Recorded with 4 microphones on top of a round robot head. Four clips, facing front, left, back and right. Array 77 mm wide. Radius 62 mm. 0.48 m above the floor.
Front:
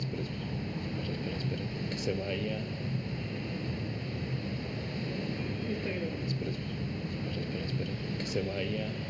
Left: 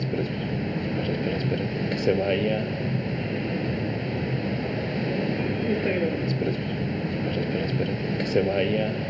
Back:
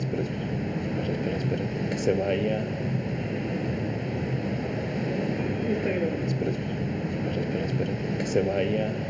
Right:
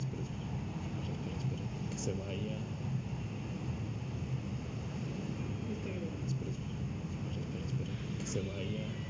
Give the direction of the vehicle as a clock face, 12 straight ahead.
8 o'clock.